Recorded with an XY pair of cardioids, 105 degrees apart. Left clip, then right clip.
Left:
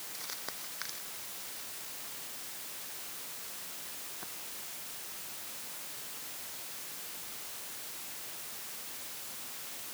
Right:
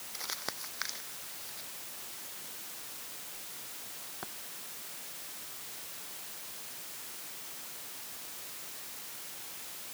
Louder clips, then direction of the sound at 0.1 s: Right 5 dB; 40° right.